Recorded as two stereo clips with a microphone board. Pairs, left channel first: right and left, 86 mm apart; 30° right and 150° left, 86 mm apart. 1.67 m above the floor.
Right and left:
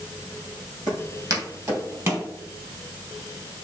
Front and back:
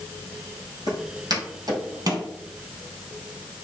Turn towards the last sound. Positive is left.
turn(degrees=145)